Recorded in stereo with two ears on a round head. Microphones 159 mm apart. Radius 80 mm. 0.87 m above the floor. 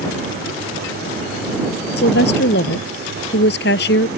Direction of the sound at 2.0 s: 65° left (ahead or behind).